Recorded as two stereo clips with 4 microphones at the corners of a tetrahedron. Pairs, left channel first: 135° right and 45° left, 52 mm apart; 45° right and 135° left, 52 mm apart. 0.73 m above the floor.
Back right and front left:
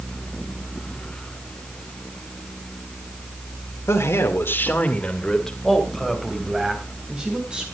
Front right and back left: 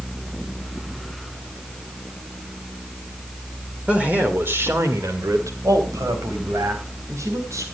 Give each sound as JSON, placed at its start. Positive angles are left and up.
{"t": 3.9, "sound": "a man speaking", "azimuth_deg": -150, "distance_m": 1.9}